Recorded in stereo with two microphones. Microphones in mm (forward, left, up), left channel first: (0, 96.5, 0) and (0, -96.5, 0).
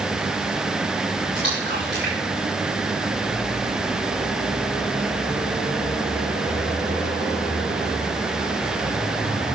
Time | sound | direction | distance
1.4 | a splash | 65° right (ahead or behind) | 8.5 m